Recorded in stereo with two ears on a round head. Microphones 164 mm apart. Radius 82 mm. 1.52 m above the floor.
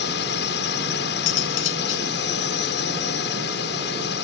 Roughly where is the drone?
Left.